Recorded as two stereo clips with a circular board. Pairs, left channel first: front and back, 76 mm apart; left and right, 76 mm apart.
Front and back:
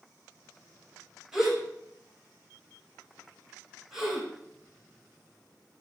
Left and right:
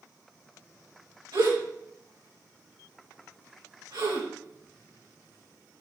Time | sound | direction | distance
1.3 | a gasp | 95° right | 6 m